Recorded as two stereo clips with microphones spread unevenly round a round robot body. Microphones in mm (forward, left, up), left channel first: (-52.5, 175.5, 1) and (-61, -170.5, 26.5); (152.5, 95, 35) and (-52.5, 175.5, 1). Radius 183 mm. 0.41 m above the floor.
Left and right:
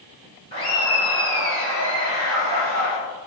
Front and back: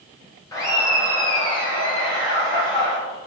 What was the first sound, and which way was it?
Laughter, 55° left.